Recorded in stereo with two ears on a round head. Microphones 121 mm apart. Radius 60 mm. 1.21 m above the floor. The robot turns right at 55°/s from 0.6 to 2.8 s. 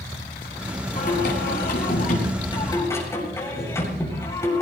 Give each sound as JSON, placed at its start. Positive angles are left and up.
{"t": 0.9, "sound": "singing", "azimuth_deg": 55, "distance_m": 8.5}